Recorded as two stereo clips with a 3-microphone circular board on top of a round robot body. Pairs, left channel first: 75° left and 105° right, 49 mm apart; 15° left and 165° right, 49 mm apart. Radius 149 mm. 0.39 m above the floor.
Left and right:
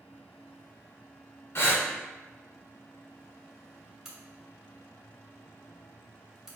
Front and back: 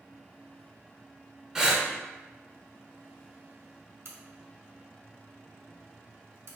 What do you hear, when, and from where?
1.6 s breathing: 115° left, 0.9 m
4.0 s a crack: straight behind, 1.2 m